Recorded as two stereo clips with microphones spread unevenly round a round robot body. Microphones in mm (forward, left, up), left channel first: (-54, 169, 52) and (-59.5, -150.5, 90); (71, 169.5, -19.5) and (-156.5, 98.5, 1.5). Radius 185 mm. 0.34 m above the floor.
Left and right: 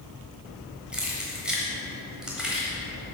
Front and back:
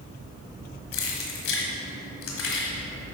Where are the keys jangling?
Straight ahead, 1.2 m.